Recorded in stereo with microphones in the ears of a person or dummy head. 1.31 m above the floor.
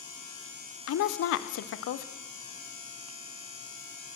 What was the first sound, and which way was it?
A woman speaking, 70° left (ahead or behind).